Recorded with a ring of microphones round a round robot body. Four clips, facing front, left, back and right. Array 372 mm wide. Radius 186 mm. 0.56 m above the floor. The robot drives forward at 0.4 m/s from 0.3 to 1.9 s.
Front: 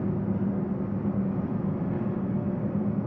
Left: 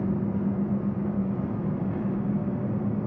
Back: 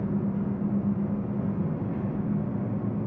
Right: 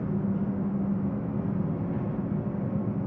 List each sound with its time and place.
0.0 s an engine running: 60° left, 1.9 m; by 3.1 s 80° left, 1.6 m